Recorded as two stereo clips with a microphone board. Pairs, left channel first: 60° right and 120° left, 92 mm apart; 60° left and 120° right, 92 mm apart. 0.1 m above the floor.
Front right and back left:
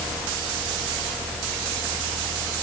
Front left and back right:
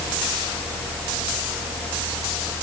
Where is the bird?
No bird in this recording.